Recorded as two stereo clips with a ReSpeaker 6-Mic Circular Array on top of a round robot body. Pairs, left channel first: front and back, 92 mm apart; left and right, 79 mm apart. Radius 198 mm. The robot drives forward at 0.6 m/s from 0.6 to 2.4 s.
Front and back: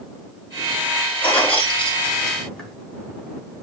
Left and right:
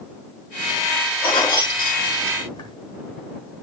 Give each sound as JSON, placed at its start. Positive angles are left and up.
{"t": 1.2, "sound": "keys jangling", "azimuth_deg": 75, "distance_m": 3.5}